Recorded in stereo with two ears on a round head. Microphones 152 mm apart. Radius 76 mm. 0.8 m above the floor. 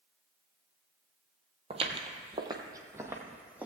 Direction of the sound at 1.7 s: 35° right (ahead or behind).